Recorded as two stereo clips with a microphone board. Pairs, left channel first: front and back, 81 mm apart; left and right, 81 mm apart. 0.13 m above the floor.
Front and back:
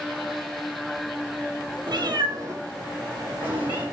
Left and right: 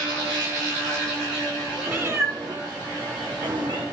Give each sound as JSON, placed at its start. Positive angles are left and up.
{"t": 1.9, "sound": "a cat meowing", "azimuth_deg": -160, "distance_m": 0.7}